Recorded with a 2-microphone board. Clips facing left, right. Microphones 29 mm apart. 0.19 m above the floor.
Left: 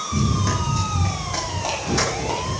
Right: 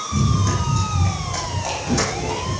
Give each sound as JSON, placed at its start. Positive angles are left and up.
{"t": 0.1, "sound": "running footsteps", "side_deg": 15, "distance_m": 6.0}